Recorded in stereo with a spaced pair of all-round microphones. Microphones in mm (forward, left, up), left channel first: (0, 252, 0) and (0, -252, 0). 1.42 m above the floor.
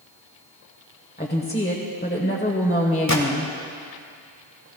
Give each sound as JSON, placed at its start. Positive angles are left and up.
{"t": 1.2, "sound": "a woman speaking", "side_deg": 20, "distance_m": 1.2}
{"t": 3.1, "sound": "a gunshot", "side_deg": 35, "distance_m": 1.4}